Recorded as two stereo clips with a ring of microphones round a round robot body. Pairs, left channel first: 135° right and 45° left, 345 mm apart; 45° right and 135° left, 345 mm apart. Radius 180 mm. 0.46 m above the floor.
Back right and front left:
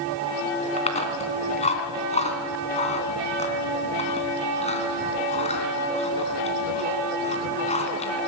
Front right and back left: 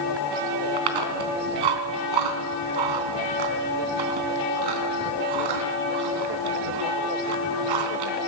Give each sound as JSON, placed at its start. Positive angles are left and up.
{"t": 0.8, "sound": "chewing", "azimuth_deg": 155, "distance_m": 3.0}